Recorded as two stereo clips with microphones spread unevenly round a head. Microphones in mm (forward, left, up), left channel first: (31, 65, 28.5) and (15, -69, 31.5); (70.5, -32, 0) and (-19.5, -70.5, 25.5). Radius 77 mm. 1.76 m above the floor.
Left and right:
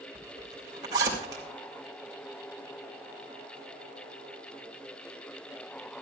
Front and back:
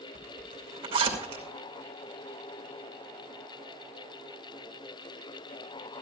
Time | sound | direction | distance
0.1 | a zipper | 165° right | 2.5 m